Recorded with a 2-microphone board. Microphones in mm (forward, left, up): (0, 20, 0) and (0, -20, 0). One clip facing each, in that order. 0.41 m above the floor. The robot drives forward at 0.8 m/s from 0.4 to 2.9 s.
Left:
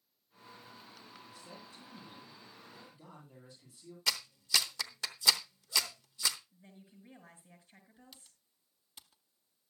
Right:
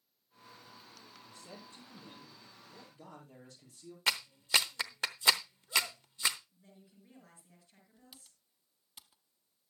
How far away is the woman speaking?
About 5.5 m.